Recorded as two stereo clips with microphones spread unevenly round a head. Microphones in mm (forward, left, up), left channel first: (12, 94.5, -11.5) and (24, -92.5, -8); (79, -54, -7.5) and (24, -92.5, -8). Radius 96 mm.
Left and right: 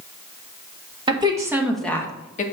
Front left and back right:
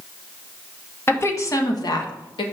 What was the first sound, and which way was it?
A woman speaking, 20° right.